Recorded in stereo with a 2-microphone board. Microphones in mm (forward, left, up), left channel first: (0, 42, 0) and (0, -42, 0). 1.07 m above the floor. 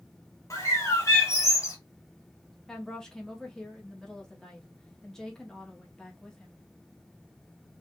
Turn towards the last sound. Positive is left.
turn(degrees=5)  # may be behind; listen again after turning